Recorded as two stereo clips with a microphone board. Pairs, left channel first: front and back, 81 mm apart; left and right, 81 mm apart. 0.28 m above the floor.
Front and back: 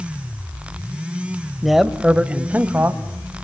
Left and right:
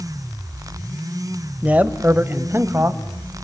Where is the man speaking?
90° right, 0.9 m; by 3.0 s 130° right, 1.2 m.